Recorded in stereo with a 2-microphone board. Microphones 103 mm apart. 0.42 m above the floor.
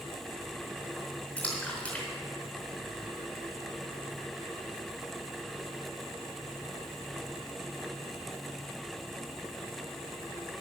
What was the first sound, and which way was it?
A splash, 10° left (ahead or behind).